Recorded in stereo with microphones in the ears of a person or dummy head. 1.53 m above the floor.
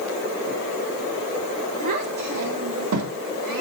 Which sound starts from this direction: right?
A child speaking, at 1.8 s.